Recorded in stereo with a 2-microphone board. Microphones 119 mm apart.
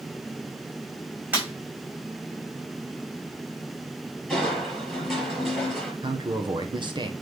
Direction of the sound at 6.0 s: 40° right (ahead or behind).